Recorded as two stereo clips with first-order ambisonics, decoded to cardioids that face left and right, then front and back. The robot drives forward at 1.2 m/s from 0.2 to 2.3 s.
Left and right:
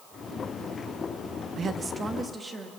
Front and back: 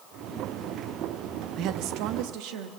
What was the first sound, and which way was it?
A woman speaking, 150° right.